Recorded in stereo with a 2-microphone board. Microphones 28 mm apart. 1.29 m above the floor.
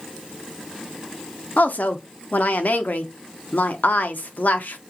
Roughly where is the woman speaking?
Left.